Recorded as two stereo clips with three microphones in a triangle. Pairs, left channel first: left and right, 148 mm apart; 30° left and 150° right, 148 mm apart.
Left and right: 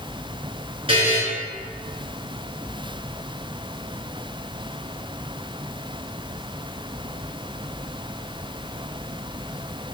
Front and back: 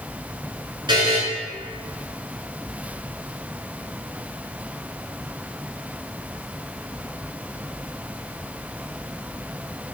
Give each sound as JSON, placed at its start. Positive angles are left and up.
{"t": 0.9, "sound": "a buzzer", "azimuth_deg": -110, "distance_m": 1.0}